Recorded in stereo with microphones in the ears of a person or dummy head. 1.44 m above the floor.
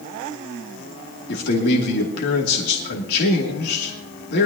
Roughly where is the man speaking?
Left.